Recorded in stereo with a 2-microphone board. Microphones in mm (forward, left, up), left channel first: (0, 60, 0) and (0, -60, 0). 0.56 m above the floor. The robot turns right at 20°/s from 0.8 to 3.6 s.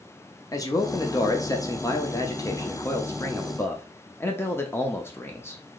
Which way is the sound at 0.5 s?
80° left.